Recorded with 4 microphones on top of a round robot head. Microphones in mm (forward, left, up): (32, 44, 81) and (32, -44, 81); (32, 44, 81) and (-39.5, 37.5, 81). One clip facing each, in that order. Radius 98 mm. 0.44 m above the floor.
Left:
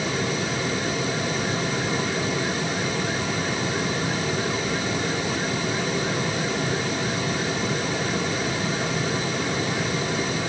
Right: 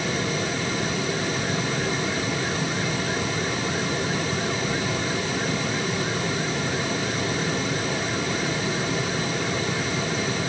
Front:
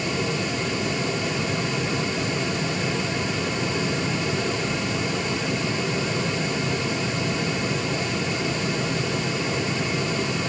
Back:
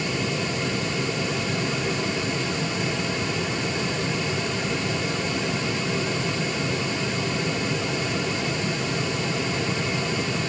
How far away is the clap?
No clap in this recording.